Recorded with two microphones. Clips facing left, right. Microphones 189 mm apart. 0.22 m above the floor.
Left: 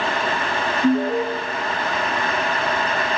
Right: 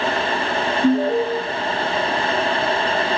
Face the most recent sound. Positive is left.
turn(degrees=-15)  # may be behind; listen again after turning